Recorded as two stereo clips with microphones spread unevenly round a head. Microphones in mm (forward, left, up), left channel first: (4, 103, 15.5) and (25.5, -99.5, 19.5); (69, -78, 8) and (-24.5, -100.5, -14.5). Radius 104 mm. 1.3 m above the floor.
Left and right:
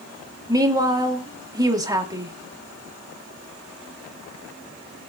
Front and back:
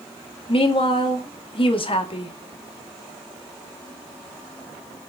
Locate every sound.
0.5 s a woman speaking: 10° right, 2 m